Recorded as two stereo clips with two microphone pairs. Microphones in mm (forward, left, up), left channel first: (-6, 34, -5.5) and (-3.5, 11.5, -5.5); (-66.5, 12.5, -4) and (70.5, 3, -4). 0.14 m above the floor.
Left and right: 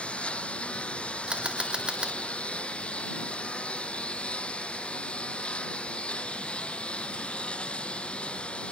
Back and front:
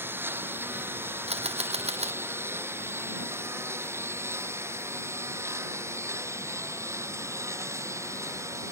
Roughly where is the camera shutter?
Ahead right.